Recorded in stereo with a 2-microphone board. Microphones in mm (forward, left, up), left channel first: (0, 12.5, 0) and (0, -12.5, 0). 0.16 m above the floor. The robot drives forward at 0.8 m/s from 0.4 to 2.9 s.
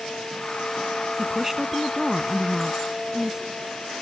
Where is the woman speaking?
10° right (ahead or behind); by 3.4 s 15° right (ahead or behind).